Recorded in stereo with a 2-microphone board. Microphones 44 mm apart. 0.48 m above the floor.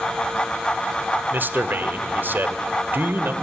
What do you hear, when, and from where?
1.3 s a man speaking: 50° right (ahead or behind), 1.4 m